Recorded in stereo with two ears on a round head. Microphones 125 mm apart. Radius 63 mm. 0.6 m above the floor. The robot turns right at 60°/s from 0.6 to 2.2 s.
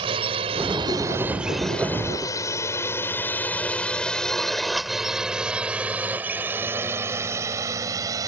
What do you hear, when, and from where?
0.0 s a drone: 40° right (ahead or behind); by 8.3 s 25° right (ahead or behind)